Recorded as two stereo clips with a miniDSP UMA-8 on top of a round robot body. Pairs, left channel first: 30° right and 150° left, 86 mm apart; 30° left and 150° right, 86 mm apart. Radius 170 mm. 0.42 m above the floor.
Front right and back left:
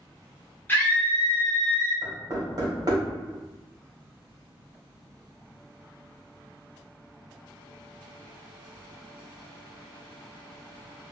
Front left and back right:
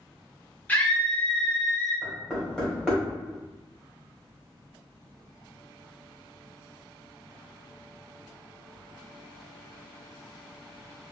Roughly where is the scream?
Ahead.